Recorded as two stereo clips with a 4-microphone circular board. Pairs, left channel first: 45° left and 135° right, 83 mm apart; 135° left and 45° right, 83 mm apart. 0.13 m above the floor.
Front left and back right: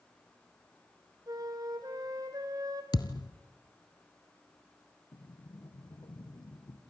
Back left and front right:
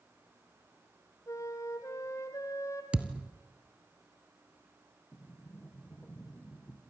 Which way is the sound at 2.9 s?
30° left.